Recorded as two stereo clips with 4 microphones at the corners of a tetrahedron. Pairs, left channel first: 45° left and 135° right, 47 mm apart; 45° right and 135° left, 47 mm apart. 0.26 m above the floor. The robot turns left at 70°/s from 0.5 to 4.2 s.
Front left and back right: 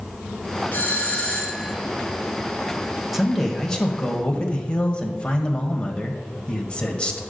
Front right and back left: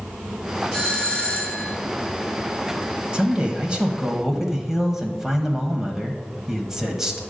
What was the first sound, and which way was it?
A doorbell, 30° left.